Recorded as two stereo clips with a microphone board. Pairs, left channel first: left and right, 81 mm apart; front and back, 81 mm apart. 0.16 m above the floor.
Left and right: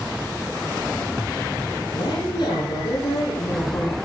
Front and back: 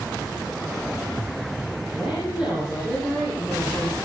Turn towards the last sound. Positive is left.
turn(degrees=110)